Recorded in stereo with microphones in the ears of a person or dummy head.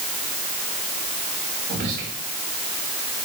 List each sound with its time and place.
1.7 s whispering: 55° right (ahead or behind), 2.5 m